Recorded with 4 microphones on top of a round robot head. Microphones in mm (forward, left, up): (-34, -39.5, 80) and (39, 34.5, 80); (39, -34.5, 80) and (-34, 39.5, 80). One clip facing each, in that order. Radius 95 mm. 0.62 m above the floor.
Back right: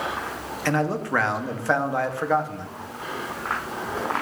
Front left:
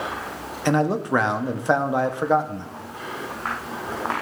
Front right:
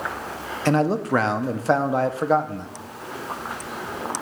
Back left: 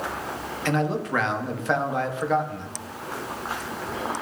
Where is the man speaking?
15° right, 0.7 m.